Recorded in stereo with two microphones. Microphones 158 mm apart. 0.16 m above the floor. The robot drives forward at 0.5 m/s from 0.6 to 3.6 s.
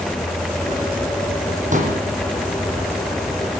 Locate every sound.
1.7 s a pop: 55° right (ahead or behind), 6 m